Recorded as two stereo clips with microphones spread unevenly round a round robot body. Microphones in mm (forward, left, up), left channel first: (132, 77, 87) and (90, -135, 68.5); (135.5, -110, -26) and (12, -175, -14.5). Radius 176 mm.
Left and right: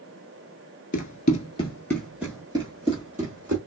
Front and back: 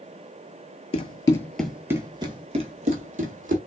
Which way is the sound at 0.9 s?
60° left.